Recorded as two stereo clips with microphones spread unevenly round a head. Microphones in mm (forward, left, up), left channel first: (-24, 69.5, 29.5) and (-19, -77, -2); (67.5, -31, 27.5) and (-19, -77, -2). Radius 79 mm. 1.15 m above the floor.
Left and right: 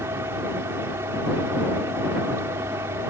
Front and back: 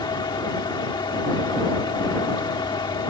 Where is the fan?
15° right.